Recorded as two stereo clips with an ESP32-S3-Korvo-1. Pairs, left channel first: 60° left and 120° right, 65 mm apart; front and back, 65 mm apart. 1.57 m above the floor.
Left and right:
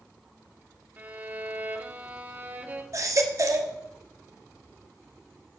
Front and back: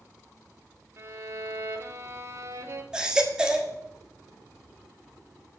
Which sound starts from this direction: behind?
A violin, at 1.0 s.